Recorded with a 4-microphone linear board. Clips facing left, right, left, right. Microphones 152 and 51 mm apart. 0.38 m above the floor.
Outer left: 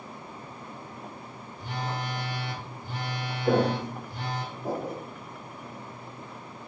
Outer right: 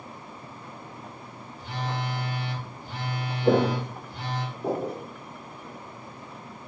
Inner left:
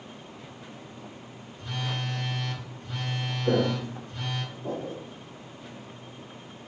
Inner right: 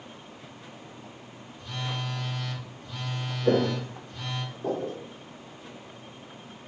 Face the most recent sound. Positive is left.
turn(degrees=-75)  # may be behind; listen again after turning